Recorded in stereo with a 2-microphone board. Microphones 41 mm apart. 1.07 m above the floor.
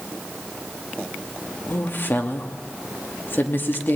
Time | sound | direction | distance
1.7 | a woman speaking | 55° left (ahead or behind) | 2.5 m